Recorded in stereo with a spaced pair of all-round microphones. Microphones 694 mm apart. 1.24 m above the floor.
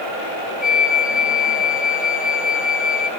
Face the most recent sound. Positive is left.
turn(degrees=15)  # may be behind; listen again after turning